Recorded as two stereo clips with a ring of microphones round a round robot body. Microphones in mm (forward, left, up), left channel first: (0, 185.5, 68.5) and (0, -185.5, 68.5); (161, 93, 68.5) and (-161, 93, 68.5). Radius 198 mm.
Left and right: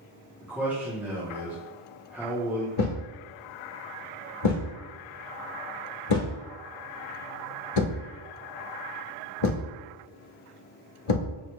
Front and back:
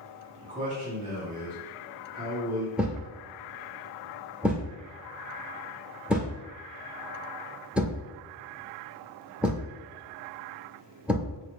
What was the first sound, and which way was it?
A man speaking, 170° right.